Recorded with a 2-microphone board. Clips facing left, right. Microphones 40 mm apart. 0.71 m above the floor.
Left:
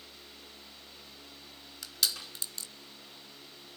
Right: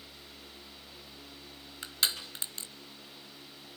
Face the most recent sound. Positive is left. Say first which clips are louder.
# right 1 dB
turn(degrees=-35)  # may be behind; listen again after turning